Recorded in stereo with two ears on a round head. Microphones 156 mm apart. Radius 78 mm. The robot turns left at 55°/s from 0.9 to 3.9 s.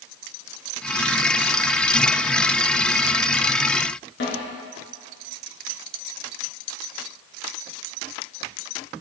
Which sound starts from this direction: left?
A snare drum, at 4.2 s.